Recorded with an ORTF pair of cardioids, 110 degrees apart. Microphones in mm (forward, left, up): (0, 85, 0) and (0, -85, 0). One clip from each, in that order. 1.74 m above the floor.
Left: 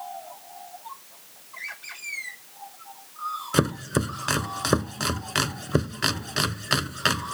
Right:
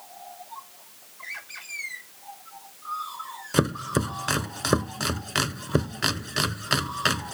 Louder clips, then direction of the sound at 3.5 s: Right 1 dB; 5° left.